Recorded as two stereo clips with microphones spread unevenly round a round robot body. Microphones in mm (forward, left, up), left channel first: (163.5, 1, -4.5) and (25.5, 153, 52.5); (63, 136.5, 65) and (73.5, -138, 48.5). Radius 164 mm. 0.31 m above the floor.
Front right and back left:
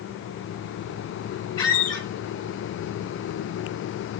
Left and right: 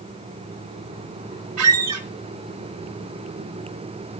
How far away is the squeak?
About 2 m.